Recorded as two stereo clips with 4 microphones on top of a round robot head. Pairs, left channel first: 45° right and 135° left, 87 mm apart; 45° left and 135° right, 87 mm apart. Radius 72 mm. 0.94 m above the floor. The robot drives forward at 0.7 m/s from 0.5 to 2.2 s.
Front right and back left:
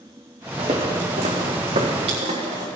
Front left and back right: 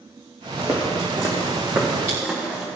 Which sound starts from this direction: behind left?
Footsteps, at 0.6 s.